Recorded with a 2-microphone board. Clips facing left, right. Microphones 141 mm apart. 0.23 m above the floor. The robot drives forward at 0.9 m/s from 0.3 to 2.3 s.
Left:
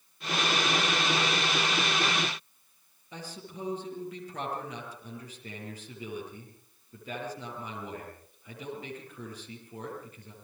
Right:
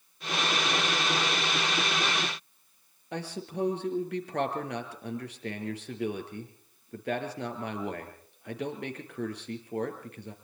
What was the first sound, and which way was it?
A man speaking, 70° right (ahead or behind).